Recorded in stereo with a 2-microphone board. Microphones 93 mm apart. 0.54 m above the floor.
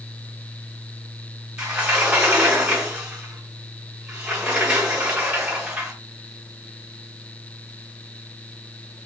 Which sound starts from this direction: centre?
A sliding door, at 1.6 s.